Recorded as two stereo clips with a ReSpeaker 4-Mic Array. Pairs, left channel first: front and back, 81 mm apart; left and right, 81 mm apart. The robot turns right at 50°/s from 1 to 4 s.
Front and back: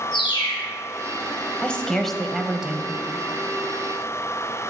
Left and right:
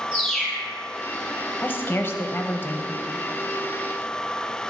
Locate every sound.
0.1 s a bird: straight ahead, 4 m
1.6 s a woman speaking: 60° left, 1.0 m; by 2.9 s 125° left, 1.0 m